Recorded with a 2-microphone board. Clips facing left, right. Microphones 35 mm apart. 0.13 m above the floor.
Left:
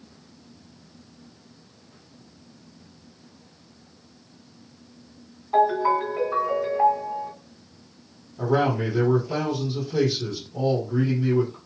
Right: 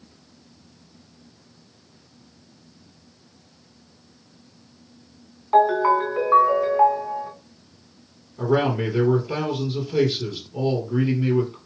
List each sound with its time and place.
5.5 s a ringtone: 50° right (ahead or behind), 2 m
8.4 s a man speaking: 45° right (ahead or behind), 2.5 m